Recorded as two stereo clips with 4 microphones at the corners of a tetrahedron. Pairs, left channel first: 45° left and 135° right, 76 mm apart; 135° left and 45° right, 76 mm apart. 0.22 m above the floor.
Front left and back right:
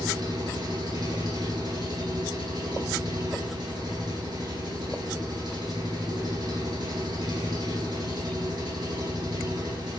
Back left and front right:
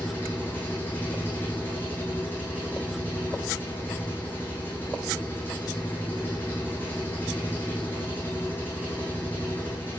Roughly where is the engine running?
Behind.